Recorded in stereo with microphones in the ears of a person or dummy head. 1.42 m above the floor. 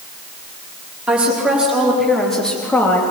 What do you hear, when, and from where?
1.1 s a woman speaking: 5° right (ahead or behind), 4 m; by 3.0 s 20° left (ahead or behind), 2.5 m